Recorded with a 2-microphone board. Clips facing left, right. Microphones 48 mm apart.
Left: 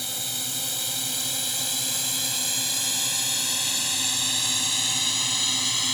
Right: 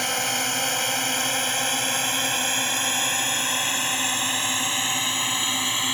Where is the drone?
55° right (ahead or behind); by 5.9 s 25° right (ahead or behind).